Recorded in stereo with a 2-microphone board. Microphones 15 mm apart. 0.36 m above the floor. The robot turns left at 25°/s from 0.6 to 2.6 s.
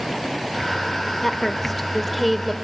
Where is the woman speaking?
15° left (ahead or behind), 1.1 m; by 2.5 s centre (ahead or behind), 1.1 m.